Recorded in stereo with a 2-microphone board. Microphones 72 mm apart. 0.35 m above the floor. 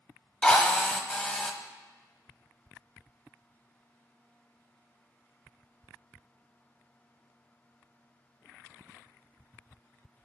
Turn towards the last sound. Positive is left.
turn(degrees=10)  # may be behind; listen again after turning